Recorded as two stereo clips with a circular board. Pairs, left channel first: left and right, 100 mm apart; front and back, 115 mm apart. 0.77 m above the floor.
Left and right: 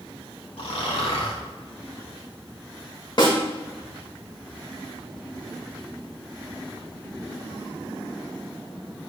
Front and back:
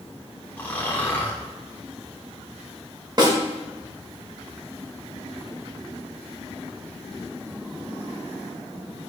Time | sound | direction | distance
0.6 | snoring | 70° left | 1.4 m
3.2 | a snare drum | 130° left | 1.8 m